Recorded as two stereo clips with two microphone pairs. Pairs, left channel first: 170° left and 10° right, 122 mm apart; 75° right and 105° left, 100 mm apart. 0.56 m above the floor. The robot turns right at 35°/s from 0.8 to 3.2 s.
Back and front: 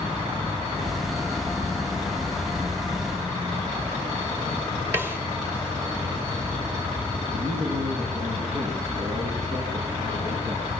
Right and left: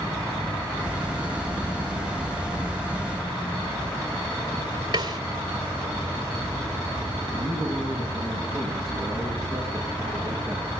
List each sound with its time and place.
4.9 s a snare drum: 60° left, 3 m
7.3 s a man speaking: 15° left, 9 m